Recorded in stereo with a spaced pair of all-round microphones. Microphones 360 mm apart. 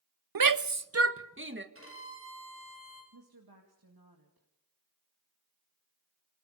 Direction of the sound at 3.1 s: 85° right.